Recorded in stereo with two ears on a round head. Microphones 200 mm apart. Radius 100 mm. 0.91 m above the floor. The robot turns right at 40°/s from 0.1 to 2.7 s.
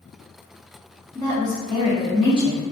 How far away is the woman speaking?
About 0.8 m.